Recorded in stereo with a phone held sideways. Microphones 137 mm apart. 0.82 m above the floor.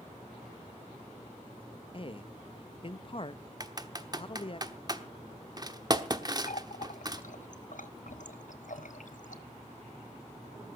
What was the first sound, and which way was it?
A man speaking, 40° left (ahead or behind).